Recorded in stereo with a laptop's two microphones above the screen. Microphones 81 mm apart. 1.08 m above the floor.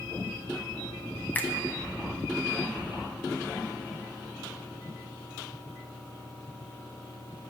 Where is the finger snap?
20° left (ahead or behind), 0.6 m.